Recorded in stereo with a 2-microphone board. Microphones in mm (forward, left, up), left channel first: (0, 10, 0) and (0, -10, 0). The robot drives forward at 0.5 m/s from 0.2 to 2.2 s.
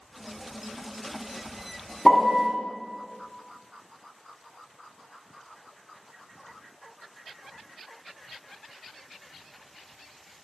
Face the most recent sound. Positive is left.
turn(degrees=10)  # may be behind; listen again after turning